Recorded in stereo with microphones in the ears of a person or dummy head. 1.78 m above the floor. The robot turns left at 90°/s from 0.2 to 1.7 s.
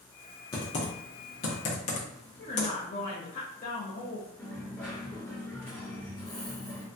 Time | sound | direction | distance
0.5 | typing on a keyboard | 20° left (ahead or behind) | 0.6 m
2.4 | a woman speaking | 35° left (ahead or behind) | 0.6 m
4.4 | a dropped coin | 5° left (ahead or behind) | 1.3 m